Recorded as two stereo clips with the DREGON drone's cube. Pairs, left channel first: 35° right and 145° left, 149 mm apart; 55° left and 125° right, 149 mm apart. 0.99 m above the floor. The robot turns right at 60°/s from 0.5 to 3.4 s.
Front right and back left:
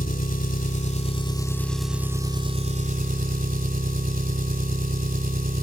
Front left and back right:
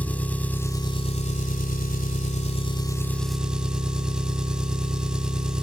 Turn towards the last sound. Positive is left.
turn(degrees=150)